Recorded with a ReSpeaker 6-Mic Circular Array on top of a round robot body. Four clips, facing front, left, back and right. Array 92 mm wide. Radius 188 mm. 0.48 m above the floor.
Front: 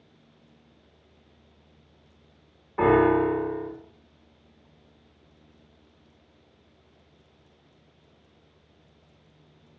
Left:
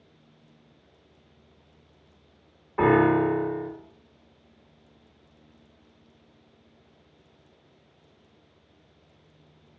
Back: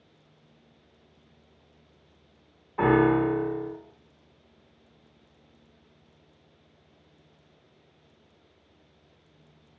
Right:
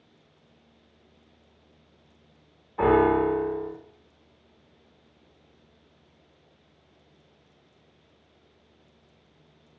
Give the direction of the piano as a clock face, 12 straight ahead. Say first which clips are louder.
Even, front 2 dB; 10 o'clock.